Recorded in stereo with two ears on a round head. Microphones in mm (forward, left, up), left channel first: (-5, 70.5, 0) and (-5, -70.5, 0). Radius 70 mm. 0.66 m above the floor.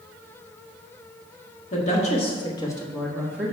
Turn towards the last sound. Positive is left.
turn(degrees=-15)  # may be behind; listen again after turning